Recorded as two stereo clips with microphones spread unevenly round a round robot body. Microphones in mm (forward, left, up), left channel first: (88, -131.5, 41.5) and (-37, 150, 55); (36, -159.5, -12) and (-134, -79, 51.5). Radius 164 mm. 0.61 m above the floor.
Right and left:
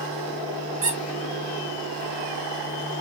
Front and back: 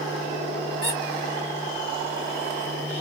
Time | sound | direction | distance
0.8 | a squeak | 45° left | 2 m